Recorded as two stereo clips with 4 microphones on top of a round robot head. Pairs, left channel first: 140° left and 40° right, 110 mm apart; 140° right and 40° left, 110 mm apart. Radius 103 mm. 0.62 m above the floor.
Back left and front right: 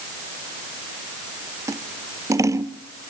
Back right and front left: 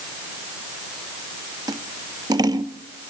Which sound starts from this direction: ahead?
Scissors, at 1.7 s.